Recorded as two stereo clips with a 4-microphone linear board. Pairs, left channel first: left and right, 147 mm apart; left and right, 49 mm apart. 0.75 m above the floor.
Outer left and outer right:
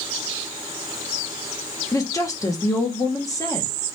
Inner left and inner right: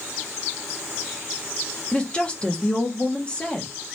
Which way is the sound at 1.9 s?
20° left (ahead or behind).